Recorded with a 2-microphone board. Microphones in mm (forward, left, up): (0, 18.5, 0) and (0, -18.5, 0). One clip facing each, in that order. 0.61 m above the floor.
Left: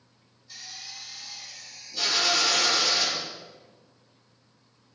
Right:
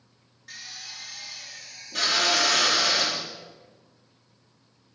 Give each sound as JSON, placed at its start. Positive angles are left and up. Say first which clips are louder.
{"t": 0.5, "sound": "a drill", "louder": "right 2 dB", "side_deg": -75, "distance_m": 5.0}